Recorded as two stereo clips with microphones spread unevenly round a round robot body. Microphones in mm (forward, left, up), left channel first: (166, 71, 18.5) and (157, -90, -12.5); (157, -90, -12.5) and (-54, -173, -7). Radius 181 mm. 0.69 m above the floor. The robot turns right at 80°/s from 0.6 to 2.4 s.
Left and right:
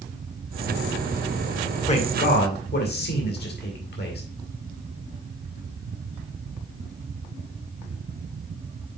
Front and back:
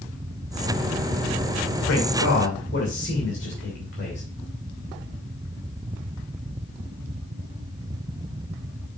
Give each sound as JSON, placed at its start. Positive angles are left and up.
{"t": 1.9, "sound": "a man speaking", "azimuth_deg": 35, "distance_m": 2.5}